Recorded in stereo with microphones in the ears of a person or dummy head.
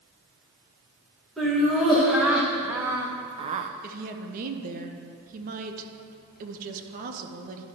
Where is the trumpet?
I don't hear a trumpet.